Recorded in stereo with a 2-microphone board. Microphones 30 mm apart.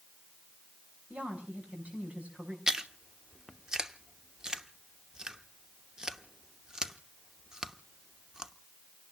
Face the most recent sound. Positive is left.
turn(degrees=-20)  # may be behind; listen again after turning